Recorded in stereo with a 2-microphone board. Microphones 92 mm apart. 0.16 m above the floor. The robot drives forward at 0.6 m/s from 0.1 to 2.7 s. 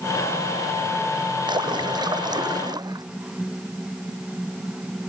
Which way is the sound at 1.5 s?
55° right (ahead or behind).